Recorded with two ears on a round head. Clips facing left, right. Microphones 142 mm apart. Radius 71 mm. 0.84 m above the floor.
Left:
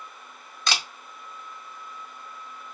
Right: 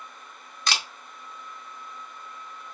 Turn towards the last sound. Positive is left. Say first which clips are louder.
# even
turn(degrees=65)  # may be behind; listen again after turning